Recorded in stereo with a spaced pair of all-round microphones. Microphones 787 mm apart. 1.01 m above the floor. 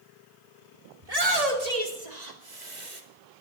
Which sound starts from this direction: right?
A shout, at 1.0 s.